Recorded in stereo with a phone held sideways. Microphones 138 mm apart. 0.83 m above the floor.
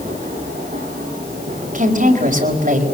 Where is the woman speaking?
80° right, 4.5 m.